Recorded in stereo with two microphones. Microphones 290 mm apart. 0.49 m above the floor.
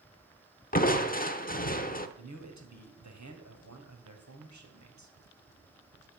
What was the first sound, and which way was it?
Crushing, 30° left (ahead or behind).